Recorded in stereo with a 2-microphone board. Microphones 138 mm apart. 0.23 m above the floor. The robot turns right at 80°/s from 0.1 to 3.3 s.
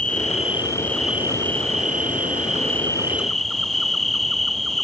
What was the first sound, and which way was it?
An insect, 105° left.